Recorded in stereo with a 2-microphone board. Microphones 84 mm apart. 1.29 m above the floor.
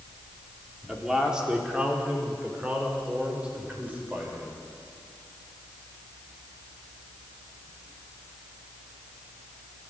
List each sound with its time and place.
0.9 s a man speaking: 5° right (ahead or behind), 4 m; by 4.5 s 20° right (ahead or behind), 6.5 m